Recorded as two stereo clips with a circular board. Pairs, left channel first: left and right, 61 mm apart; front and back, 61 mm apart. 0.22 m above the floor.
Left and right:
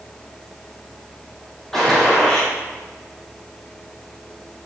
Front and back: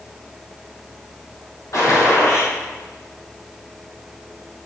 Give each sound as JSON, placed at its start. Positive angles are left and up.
{"t": 1.7, "sound": "a gunshot", "azimuth_deg": 10, "distance_m": 4.0}